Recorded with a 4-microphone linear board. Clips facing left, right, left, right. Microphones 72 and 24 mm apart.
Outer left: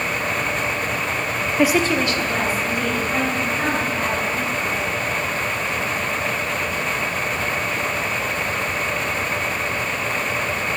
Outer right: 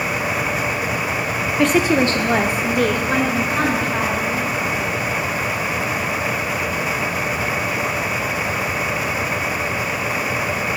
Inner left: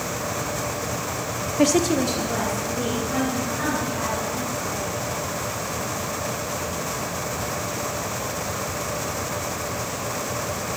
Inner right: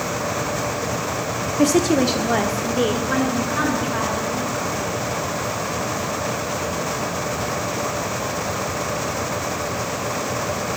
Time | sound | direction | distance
1.6 | a woman speaking | 15° left (ahead or behind) | 0.8 m